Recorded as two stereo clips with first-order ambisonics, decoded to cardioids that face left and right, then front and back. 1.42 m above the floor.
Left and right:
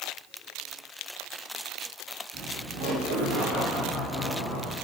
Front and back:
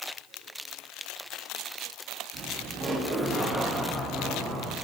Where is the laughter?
145° right, 1.3 m; by 4.7 s 70° right, 3.5 m.